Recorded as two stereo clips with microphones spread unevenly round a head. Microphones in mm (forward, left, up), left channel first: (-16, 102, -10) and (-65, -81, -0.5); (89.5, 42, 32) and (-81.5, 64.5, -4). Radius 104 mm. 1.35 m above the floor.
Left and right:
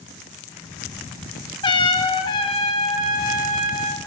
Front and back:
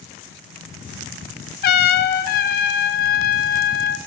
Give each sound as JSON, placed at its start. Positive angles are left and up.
{"t": 1.6, "sound": "a trumpet", "azimuth_deg": 5, "distance_m": 0.7}